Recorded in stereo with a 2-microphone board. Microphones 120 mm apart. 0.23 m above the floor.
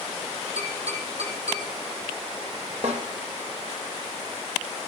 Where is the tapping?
55° right (ahead or behind), 9 m.